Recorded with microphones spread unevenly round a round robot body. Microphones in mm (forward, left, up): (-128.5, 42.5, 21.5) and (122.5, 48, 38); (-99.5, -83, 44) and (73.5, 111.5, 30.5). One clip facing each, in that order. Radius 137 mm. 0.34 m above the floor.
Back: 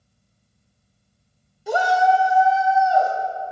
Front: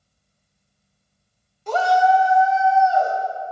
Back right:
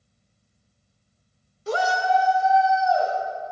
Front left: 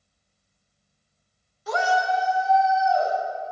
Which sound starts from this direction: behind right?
A shout, at 1.7 s.